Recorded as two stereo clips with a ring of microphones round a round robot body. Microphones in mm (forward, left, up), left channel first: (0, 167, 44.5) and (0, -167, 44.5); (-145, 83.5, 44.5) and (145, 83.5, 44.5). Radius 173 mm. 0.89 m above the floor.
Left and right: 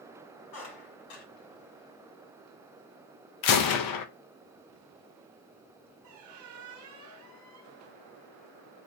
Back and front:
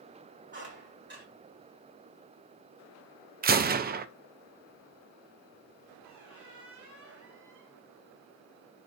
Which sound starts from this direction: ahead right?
A squeak, at 6.0 s.